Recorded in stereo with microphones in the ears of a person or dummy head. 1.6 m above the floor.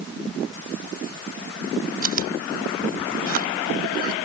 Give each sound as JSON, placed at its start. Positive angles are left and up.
{"t": 2.0, "sound": "chewing", "side_deg": -45}